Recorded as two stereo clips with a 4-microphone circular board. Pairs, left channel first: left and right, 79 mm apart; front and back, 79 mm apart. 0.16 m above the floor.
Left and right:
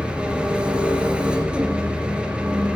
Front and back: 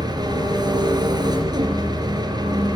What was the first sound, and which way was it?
An engine running, 165° right.